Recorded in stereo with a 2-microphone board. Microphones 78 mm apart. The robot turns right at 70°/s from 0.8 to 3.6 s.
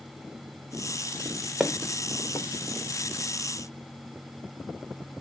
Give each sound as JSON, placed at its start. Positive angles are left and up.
{"t": 1.6, "sound": "footsteps", "side_deg": -5, "distance_m": 0.7}